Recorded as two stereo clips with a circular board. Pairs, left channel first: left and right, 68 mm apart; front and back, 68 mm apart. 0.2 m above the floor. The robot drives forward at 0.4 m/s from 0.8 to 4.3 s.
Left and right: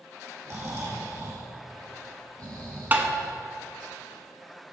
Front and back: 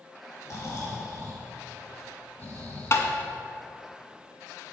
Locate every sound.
0.5 s snoring: 45° right, 1.9 m; by 3.3 s 75° right, 1.4 m
2.9 s tapping: 40° right, 0.7 m